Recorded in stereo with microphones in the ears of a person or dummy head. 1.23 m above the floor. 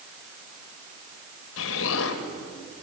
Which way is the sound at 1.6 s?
75° left (ahead or behind).